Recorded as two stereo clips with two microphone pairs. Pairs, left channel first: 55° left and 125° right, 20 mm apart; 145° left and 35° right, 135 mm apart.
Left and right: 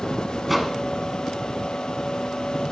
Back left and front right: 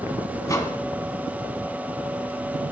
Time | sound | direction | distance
0.5 | a microwave | 165° left | 0.9 m